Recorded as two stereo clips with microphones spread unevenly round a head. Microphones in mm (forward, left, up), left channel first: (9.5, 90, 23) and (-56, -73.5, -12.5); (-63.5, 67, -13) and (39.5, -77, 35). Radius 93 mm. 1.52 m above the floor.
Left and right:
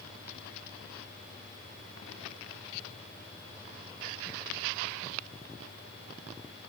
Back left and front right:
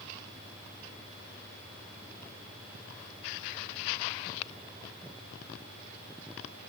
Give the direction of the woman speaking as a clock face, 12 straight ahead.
No woman speaking in this recording.